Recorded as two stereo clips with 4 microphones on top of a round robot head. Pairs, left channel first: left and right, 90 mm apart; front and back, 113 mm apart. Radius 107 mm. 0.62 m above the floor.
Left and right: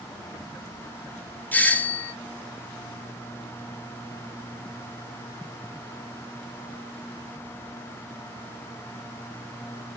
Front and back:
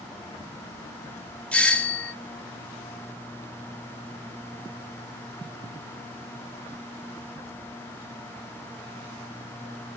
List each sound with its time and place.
1.5 s a doorbell: 60° left, 0.9 m